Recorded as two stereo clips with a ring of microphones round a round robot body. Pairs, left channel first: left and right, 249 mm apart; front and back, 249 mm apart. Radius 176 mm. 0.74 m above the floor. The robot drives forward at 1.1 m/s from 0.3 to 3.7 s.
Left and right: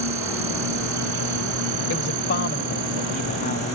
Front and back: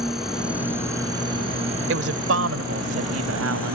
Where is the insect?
90° right; by 3.8 s 125° right.